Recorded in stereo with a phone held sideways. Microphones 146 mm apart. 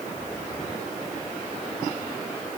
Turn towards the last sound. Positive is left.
No sound to turn to.